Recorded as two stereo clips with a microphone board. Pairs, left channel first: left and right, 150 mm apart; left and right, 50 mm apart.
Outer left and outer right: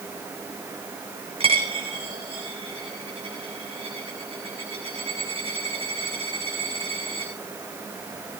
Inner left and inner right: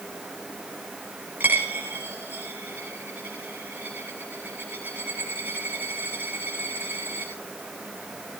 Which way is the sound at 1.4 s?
40° right (ahead or behind).